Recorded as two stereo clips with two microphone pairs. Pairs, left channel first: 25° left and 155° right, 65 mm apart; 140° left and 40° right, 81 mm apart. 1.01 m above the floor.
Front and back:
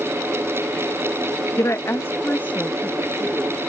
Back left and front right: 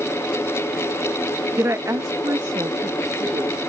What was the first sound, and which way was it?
A woman speaking, 10° left.